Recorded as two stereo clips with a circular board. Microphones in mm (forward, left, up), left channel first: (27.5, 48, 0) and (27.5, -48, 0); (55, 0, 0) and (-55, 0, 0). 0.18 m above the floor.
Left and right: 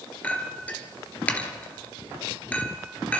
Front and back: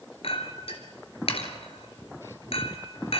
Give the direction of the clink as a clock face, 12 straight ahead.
11 o'clock.